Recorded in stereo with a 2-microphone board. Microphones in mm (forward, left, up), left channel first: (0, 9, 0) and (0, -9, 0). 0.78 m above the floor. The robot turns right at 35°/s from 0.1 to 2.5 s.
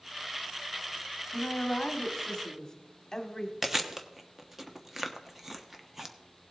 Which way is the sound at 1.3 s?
110° left.